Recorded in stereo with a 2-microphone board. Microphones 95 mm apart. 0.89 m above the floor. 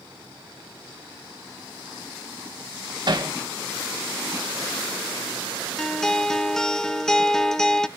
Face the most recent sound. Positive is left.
turn(degrees=5)  # may be behind; listen again after turning